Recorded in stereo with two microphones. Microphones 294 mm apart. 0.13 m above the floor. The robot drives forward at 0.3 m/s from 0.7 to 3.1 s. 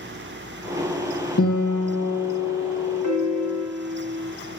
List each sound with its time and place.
1.4 s a guitar: 55° left (ahead or behind), 3 m; by 3.6 s 50° left (ahead or behind), 3 m
3.0 s a piano: 85° right, 1.8 m